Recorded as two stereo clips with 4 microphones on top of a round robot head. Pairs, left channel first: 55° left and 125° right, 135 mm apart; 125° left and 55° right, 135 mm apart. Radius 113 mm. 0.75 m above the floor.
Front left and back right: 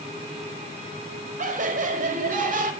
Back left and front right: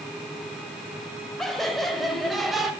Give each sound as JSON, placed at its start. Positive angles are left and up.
{"t": 1.4, "sound": "laughter", "azimuth_deg": -145, "distance_m": 5.0}